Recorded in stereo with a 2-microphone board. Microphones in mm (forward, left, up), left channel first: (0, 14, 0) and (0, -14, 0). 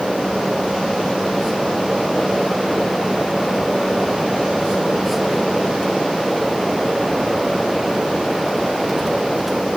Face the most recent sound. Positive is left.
No sound to turn to.